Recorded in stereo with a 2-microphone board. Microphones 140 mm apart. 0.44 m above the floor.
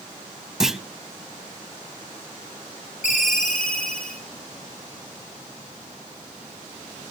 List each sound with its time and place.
0.6 s a clunk: centre (ahead or behind), 0.5 m
3.0 s a ringtone: 75° left (ahead or behind), 5 m